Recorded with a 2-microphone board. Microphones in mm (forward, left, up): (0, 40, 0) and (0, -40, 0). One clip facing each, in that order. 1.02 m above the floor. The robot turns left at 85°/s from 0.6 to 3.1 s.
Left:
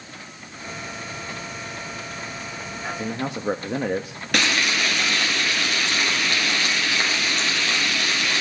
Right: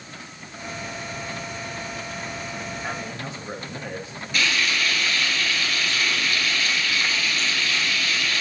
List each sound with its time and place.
3.0 s a man speaking: 60° left (ahead or behind), 1.2 m; by 4.2 s 70° left (ahead or behind), 1.2 m
4.3 s frying: 75° left (ahead or behind), 4 m